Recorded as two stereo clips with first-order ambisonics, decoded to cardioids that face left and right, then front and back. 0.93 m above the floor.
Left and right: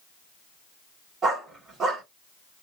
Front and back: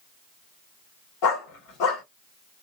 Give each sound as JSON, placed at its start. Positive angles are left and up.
{"t": 1.2, "sound": "a dog barking", "azimuth_deg": -15, "distance_m": 1.8}